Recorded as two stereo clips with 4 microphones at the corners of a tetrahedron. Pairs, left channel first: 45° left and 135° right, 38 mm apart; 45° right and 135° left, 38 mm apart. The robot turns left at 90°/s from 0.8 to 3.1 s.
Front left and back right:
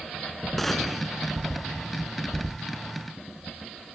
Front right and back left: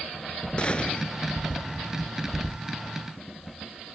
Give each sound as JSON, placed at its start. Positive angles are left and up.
{"t": 0.6, "sound": "a gunshot", "azimuth_deg": -35, "distance_m": 1.6}